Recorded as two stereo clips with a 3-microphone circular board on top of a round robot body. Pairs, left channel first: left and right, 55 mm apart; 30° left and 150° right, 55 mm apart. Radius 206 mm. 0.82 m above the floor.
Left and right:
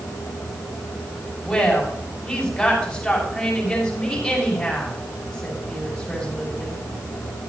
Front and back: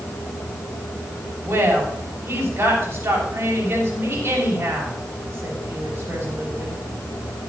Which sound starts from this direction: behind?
A woman speaking, at 1.4 s.